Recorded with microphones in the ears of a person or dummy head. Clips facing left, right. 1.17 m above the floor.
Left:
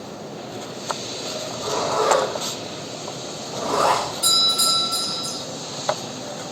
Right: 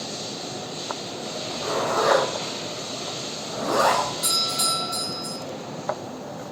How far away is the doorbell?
About 1.7 m.